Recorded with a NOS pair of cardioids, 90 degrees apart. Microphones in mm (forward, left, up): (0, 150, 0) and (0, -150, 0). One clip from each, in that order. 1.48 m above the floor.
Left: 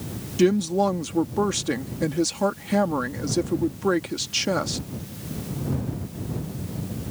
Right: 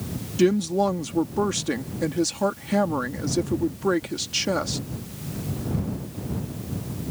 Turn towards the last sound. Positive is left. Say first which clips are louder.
# even
turn(degrees=5)